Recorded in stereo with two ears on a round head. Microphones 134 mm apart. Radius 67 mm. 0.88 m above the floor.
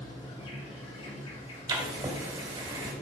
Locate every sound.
0.0 s an insect: 40° left (ahead or behind), 3.5 m
1.7 s writing: 25° right (ahead or behind), 2 m